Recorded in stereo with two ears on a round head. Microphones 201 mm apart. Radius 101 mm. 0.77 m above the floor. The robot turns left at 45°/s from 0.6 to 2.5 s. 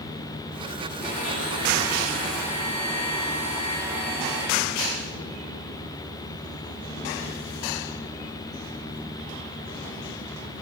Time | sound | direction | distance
1.0 | a blender | 105° right | 7 m